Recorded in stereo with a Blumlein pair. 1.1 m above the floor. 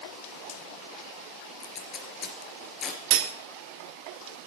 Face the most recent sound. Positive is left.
turn(degrees=-45)